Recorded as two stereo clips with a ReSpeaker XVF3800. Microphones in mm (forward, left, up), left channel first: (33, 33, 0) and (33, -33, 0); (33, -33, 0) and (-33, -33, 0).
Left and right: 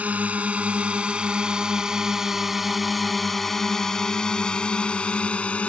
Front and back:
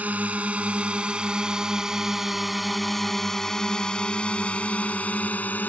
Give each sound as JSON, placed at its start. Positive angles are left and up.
{"t": 0.0, "sound": "a drone", "azimuth_deg": -135}